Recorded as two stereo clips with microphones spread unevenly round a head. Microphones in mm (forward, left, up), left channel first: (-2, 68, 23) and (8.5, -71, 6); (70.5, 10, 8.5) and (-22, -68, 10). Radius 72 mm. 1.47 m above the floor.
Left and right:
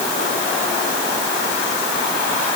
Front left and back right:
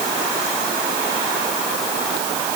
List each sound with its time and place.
Only background noise.